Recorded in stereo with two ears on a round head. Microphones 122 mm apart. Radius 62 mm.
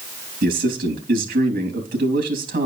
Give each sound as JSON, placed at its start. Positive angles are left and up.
{"t": 0.4, "sound": "a man speaking", "side_deg": -80, "distance_m": 2.5}